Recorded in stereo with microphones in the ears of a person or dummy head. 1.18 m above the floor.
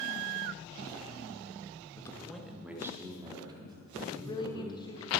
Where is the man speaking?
20° left (ahead or behind), 1.1 m; by 5.0 s 35° right (ahead or behind), 4 m.